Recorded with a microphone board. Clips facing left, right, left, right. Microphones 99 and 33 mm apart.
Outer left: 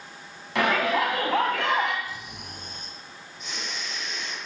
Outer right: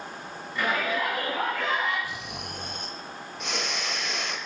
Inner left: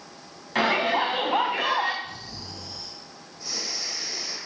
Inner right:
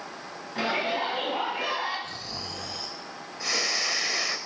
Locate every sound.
0.6 s a shout: 80° left, 5 m
2.0 s snoring: 75° right (ahead or behind), 1.5 m